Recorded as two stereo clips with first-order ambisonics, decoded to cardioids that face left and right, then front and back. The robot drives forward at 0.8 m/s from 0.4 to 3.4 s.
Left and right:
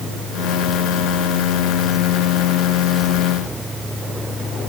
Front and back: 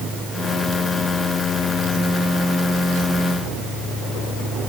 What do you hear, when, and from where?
Only background noise.